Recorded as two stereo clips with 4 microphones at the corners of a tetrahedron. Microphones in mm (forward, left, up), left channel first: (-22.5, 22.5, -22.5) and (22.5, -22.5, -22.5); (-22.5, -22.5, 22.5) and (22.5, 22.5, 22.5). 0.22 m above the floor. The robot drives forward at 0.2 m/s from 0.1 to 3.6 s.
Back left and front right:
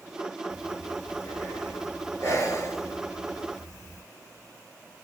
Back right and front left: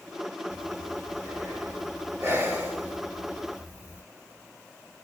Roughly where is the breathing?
Left.